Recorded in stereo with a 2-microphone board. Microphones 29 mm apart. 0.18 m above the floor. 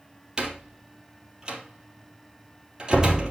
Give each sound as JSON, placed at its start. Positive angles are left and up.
{"t": 0.4, "sound": "a door slam", "side_deg": -25, "distance_m": 3.5}